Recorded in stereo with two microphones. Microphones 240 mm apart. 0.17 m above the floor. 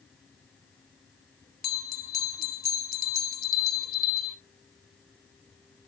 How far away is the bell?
About 0.8 m.